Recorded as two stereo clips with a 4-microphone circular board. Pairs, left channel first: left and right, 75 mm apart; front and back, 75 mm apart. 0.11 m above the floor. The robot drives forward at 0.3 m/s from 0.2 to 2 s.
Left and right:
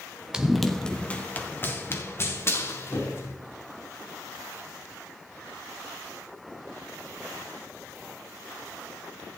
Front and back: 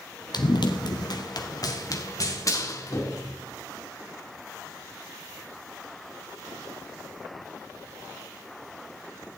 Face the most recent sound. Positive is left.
turn(degrees=45)